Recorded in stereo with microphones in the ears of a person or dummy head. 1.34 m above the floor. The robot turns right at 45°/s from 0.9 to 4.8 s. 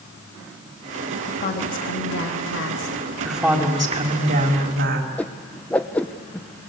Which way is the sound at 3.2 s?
175° left.